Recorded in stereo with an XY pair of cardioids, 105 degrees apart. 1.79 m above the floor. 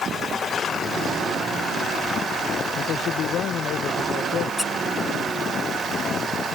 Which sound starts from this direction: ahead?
A squeak, at 4.6 s.